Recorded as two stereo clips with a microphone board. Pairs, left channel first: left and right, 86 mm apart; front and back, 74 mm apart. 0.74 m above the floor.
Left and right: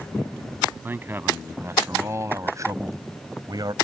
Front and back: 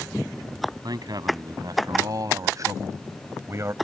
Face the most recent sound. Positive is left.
turn(degrees=-125)